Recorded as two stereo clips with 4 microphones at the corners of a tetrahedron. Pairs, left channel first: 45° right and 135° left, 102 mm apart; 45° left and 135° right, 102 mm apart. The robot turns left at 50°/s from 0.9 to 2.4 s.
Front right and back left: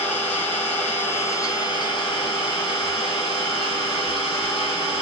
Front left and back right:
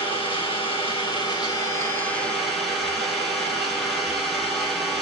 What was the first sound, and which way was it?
An engine running, 30° left.